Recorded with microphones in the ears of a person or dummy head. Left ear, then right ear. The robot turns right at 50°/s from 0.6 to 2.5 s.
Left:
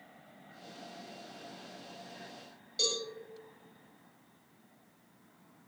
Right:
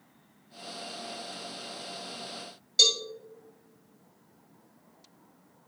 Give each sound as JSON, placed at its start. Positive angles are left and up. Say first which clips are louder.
{"t": 2.8, "sound": "a cowbell", "louder": "right 10 dB", "side_deg": -35, "distance_m": 4.0}